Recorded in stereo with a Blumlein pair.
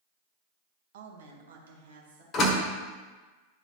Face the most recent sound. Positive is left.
turn(degrees=30)